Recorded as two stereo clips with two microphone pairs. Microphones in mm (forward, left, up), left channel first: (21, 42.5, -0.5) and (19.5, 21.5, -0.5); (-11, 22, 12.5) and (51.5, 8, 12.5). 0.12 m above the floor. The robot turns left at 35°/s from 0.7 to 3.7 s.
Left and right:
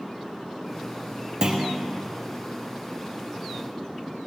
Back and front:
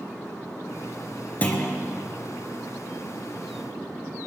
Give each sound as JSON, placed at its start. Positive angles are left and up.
{"t": 1.4, "sound": "a clunk", "azimuth_deg": -135, "distance_m": 2.0}